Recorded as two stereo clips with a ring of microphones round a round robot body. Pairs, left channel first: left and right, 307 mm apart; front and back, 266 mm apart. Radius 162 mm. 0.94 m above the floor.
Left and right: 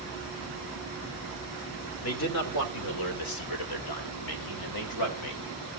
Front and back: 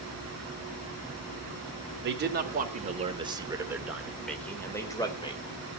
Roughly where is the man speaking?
Behind left.